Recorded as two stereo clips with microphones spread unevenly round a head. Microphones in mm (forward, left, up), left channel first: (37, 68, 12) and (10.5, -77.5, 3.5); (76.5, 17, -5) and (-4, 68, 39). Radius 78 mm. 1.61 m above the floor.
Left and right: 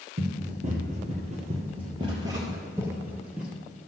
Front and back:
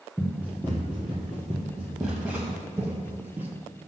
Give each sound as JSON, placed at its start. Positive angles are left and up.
{"t": 0.2, "sound": "running footsteps", "azimuth_deg": -130, "distance_m": 2.5}